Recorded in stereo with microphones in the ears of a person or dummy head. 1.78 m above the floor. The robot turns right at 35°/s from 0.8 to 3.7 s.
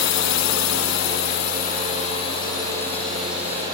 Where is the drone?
60° left (ahead or behind); by 3.8 s 20° right (ahead or behind).